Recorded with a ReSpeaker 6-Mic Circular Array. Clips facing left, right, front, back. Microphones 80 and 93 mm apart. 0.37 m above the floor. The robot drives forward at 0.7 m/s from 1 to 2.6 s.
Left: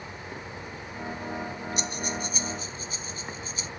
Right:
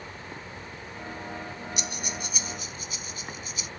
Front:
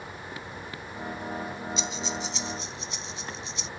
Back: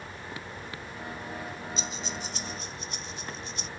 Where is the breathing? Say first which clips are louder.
Left 4 dB, front 4 dB; 140° left; by 3.7 s 145° left.